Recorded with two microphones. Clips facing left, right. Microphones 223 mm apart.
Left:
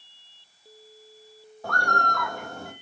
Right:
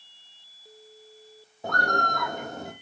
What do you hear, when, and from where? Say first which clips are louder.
1.6 s a bird: right 1 dB; 20° right (ahead or behind), 1.3 m